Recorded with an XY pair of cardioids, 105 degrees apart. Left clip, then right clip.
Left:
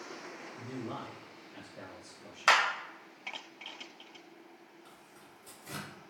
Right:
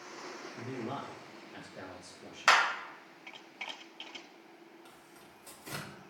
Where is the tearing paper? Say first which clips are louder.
Even; 30° right, 2 m.